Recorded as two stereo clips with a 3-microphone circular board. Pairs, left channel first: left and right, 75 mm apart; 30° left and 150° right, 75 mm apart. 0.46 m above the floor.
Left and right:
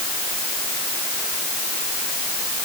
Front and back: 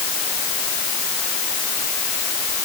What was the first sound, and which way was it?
Only background noise.